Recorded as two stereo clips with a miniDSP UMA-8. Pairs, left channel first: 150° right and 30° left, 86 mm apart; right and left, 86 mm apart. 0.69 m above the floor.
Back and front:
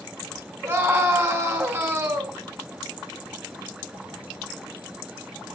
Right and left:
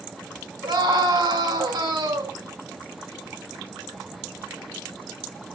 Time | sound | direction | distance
0.6 | a scream | 95° left | 3.5 m